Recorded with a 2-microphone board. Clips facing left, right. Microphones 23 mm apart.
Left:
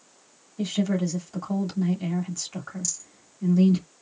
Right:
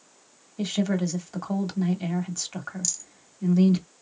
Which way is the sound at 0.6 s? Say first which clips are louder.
Even; 20° right (ahead or behind).